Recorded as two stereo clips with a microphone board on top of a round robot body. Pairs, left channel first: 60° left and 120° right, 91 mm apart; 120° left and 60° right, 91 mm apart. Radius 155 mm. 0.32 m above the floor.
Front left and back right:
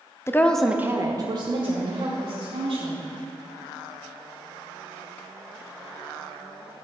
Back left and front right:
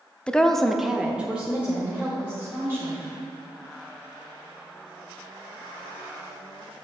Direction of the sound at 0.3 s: 50° left.